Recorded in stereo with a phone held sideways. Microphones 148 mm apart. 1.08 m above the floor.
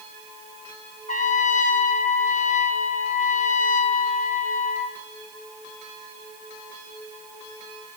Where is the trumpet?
60° left (ahead or behind), 1.4 m.